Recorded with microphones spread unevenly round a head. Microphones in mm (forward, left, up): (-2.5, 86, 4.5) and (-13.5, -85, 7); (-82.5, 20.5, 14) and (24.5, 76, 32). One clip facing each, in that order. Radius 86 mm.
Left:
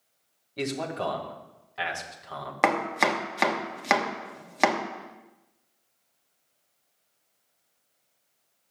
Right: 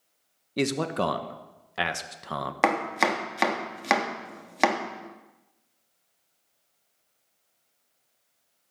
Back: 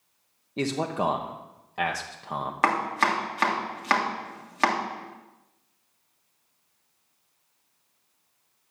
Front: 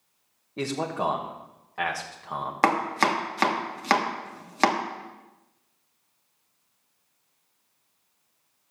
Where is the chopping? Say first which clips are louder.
Even, front 2 dB; 5° right, 1.2 m.